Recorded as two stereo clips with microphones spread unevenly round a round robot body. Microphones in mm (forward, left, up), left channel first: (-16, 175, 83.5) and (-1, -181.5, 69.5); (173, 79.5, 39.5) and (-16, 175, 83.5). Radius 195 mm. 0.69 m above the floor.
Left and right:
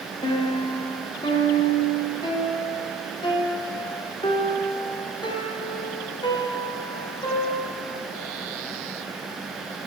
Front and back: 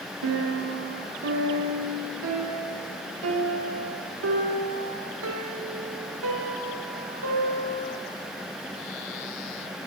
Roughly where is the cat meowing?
No cat meowing in this recording.